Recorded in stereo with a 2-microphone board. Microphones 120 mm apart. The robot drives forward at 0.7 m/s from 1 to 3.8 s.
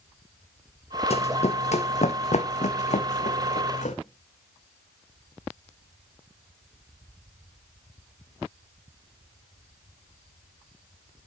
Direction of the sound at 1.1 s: 60° left (ahead or behind).